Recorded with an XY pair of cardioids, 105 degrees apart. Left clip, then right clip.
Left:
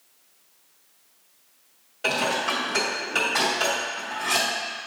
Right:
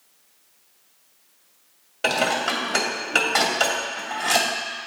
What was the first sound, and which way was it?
Dishes clattering, 55° right.